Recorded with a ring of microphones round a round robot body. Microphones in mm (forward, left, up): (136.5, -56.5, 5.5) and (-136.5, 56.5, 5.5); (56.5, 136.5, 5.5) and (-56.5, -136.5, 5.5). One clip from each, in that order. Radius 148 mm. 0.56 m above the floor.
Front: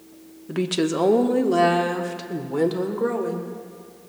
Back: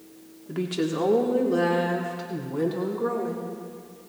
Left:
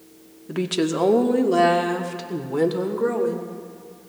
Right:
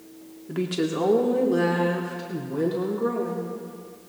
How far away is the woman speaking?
About 0.9 m.